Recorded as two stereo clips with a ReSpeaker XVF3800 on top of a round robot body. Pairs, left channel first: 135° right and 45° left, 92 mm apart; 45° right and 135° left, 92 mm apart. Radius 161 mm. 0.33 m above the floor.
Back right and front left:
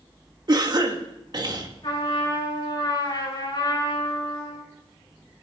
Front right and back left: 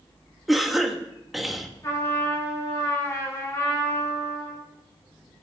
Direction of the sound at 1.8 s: 100° right.